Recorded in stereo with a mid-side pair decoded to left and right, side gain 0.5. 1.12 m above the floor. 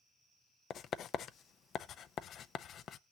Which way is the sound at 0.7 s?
60° left.